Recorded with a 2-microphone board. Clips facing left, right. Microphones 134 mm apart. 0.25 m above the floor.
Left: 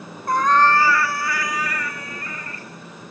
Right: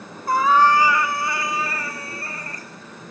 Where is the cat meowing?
5° right (ahead or behind), 1.4 m; by 2.7 s 40° right (ahead or behind), 3 m.